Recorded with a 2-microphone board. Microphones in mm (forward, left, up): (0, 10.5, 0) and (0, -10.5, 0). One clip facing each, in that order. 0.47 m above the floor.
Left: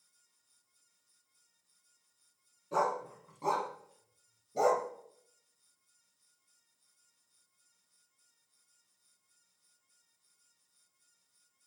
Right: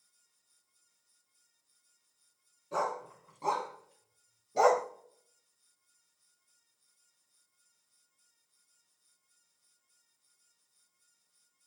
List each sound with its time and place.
2.7 s a dog barking: centre (ahead or behind), 1.8 m; by 4.9 s 50° right (ahead or behind), 0.6 m